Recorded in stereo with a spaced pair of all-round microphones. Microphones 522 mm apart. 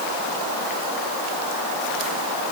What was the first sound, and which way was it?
Only background noise.